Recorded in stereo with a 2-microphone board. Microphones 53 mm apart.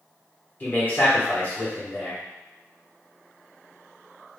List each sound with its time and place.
0.6 s a man speaking: 30° left (ahead or behind), 1.3 m